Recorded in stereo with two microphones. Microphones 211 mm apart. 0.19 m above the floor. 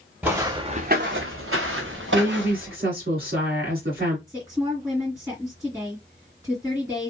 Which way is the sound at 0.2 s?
5° right (ahead or behind).